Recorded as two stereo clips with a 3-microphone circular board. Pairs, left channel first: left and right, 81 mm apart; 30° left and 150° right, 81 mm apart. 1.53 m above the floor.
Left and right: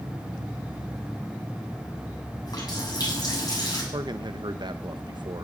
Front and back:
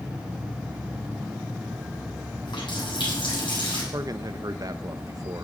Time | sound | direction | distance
2.5 | a running tap | 50° left | 8 m
3.9 | a man speaking | 110° right | 1.2 m